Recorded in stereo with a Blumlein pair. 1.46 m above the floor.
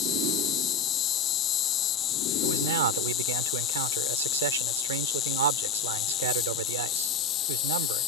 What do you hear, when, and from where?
0.0 s an insect: 30° left
2.4 s a man speaking: 65° right